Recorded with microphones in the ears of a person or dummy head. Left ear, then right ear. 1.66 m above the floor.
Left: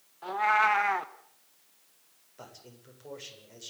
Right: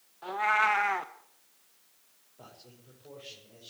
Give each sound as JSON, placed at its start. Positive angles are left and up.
{"t": 0.2, "sound": "a cat meowing", "side_deg": 0, "distance_m": 0.9}
{"t": 2.4, "sound": "a man speaking", "side_deg": 60, "distance_m": 8.0}